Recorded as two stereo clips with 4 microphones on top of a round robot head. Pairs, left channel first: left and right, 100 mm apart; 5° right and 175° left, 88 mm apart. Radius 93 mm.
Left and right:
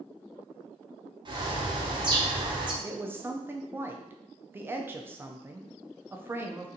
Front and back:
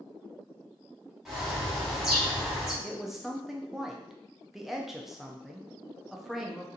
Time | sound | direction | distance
1.2 | a bird | 105° right | 1.4 m
2.8 | a woman speaking | 105° right | 0.5 m